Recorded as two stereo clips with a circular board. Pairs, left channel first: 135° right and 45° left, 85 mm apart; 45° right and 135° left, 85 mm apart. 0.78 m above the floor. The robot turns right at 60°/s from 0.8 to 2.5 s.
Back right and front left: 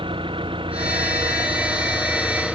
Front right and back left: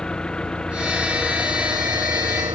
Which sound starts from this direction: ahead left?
An engine running, at 0.0 s.